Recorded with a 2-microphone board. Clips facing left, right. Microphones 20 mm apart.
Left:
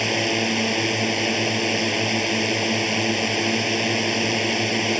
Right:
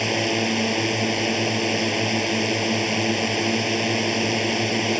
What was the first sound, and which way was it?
A drone, 5° left (ahead or behind).